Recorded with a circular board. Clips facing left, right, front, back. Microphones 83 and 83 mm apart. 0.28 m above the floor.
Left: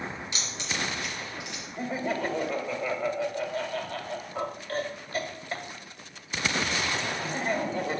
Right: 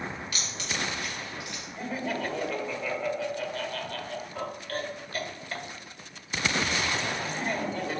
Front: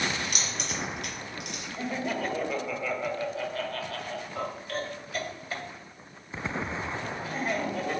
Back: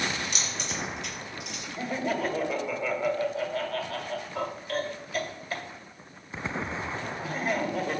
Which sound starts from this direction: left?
Laughter, at 1.8 s.